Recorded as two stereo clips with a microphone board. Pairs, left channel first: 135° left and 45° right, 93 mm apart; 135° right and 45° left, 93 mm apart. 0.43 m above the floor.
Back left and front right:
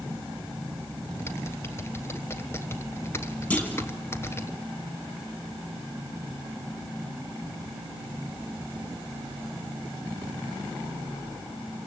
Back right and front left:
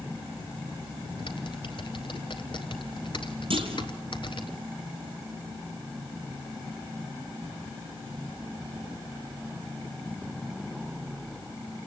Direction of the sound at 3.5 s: 60° left.